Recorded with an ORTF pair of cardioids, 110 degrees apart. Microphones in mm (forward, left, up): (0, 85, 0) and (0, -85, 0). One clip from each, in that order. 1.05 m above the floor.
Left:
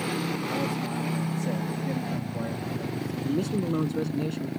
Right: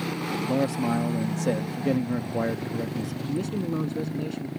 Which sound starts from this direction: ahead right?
A man speaking, at 0.5 s.